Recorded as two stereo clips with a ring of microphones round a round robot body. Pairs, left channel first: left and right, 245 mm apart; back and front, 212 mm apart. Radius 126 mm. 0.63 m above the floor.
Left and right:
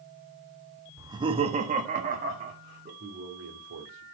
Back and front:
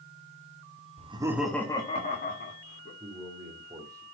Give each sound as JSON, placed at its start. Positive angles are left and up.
{"t": 1.0, "sound": "laughter", "azimuth_deg": -20, "distance_m": 1.4}
{"t": 3.0, "sound": "a man speaking", "azimuth_deg": -75, "distance_m": 2.5}